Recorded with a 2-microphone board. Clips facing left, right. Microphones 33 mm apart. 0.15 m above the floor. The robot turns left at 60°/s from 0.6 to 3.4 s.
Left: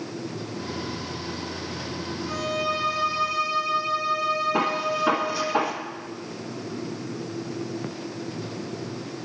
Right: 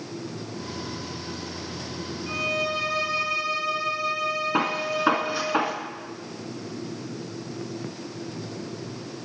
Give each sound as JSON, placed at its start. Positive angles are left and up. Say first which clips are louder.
{"t": 2.3, "sound": "a violin", "louder": "right 1 dB", "azimuth_deg": -30, "distance_m": 3.0}
{"t": 4.5, "sound": "a gunshot", "louder": "left 1 dB", "side_deg": -25, "distance_m": 1.3}